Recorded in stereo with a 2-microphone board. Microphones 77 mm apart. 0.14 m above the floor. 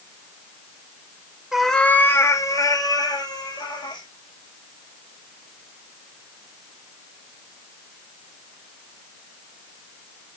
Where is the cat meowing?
5° right (ahead or behind), 0.9 m; by 4.0 s 65° left (ahead or behind), 3 m.